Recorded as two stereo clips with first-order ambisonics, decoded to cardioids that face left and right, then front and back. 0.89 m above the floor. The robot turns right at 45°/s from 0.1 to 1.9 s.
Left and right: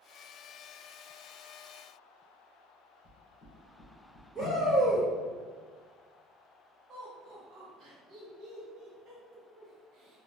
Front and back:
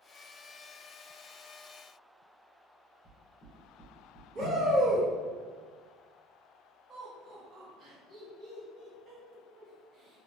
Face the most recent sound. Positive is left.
turn(degrees=-130)